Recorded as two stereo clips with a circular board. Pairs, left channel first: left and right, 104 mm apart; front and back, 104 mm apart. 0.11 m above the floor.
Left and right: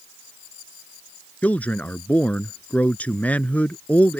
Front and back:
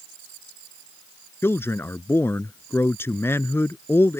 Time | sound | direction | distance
1.4 | a man speaking | 35° left | ?